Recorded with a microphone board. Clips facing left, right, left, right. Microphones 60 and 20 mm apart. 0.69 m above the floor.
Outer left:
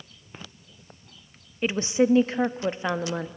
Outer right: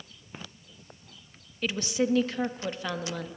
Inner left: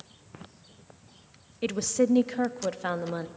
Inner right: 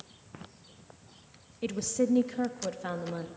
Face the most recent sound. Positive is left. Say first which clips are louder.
# outer left 6 dB, inner left 4 dB
turn(degrees=30)  # may be behind; listen again after turning